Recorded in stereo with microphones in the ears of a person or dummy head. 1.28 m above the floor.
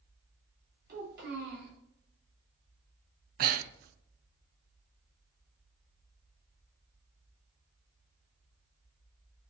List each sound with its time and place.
0.9 s a child speaking: 65° right (ahead or behind), 3.5 m
3.4 s breathing: 50° right (ahead or behind), 0.6 m